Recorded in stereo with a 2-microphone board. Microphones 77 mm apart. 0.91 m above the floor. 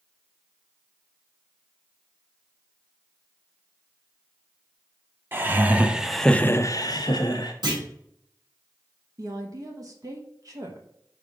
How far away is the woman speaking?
About 1.0 m.